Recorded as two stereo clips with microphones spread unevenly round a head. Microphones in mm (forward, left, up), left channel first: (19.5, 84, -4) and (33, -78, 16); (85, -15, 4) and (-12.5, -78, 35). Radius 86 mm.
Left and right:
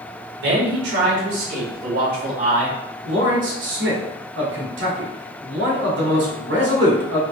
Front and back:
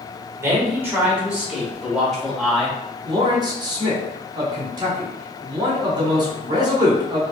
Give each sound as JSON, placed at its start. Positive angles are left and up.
{"t": 0.4, "sound": "a man speaking", "azimuth_deg": -80, "distance_m": 1.8}
{"t": 3.0, "sound": "a man speaking", "azimuth_deg": -95, "distance_m": 1.8}